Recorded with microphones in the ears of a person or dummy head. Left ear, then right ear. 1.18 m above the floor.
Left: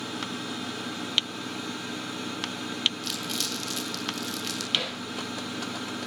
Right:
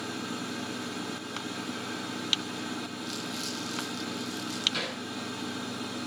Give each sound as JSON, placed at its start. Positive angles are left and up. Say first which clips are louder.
{"t": 3.0, "sound": "crumpling", "louder": "left 5 dB", "side_deg": 65, "distance_m": 7.0}
{"t": 4.7, "sound": "hammering", "louder": "left 6 dB", "side_deg": -5, "distance_m": 9.5}